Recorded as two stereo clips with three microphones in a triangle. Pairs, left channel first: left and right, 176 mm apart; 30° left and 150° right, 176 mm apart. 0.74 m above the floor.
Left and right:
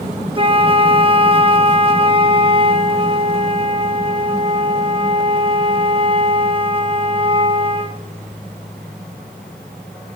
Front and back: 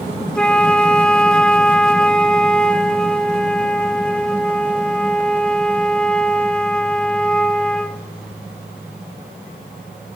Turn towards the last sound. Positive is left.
turn(degrees=-55)